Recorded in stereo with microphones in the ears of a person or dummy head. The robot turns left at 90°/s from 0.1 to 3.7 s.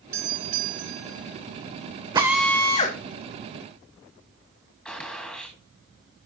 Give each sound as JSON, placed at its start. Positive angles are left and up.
{"t": 0.1, "sound": "a doorbell", "azimuth_deg": -15, "distance_m": 2.5}
{"t": 2.1, "sound": "a drill", "azimuth_deg": -155, "distance_m": 2.0}
{"t": 4.8, "sound": "a gunshot", "side_deg": 5, "distance_m": 2.0}